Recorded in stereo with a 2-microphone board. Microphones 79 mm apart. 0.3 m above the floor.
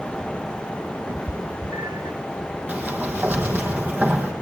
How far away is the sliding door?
About 3 m.